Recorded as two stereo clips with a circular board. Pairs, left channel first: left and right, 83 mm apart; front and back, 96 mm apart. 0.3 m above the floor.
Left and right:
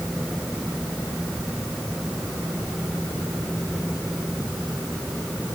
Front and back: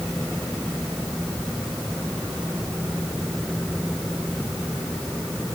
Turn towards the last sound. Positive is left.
No sound to turn to.